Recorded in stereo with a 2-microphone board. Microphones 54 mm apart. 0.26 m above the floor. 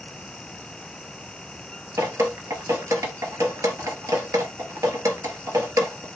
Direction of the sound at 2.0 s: 85° right.